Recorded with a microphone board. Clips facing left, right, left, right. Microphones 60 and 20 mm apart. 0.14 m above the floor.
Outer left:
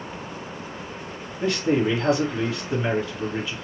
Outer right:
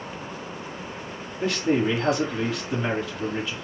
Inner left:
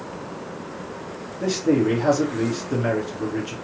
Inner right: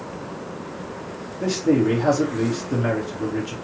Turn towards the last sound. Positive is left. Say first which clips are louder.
# outer left 1 dB, inner right 1 dB
turn(degrees=0)  # may be behind; listen again after turning